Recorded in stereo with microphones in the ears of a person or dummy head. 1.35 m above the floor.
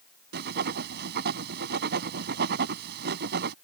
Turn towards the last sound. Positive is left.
turn(degrees=-60)  # may be behind; listen again after turning